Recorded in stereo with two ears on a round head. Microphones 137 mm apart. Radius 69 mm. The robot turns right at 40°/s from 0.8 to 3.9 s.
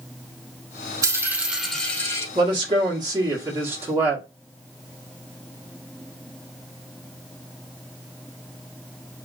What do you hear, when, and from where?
1.0 s a dropped coin: 25° right, 0.8 m; by 2.2 s 25° left, 0.8 m
2.4 s a man speaking: 85° right, 1.5 m; by 4.2 s 20° right, 1.5 m